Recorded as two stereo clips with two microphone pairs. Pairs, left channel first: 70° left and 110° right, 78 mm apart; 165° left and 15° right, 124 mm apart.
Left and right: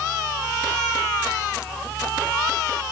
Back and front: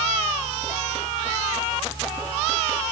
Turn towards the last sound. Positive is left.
No sound to turn to.